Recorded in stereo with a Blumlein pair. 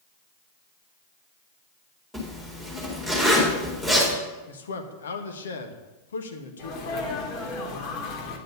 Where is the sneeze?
35° left, 2.5 m.